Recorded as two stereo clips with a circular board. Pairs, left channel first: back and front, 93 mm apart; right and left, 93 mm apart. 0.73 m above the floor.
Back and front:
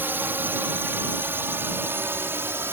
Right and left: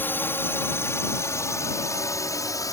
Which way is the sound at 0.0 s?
45° right.